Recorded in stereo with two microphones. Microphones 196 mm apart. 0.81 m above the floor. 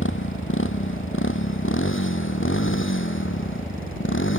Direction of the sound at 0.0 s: 90° left.